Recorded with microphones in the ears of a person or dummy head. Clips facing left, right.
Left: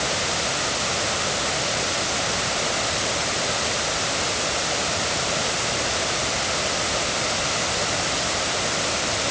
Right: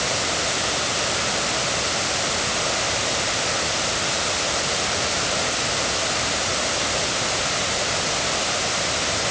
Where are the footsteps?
I don't hear footsteps.